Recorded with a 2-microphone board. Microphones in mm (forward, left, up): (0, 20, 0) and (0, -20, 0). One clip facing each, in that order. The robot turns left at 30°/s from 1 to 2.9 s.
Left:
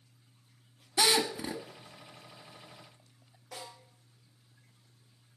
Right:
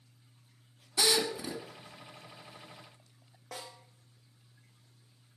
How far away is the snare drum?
About 5.5 m.